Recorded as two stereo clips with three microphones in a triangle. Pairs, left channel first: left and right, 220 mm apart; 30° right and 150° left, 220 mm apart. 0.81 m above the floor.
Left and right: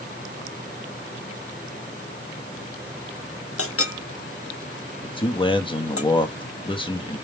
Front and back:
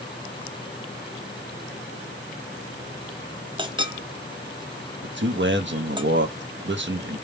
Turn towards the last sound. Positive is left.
turn(degrees=150)